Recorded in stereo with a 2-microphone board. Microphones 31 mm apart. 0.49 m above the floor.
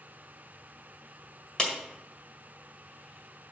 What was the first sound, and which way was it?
A clap, 25° left (ahead or behind).